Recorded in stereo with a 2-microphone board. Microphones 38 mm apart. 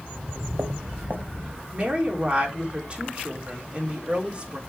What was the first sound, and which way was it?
Footsteps, 55° right (ahead or behind).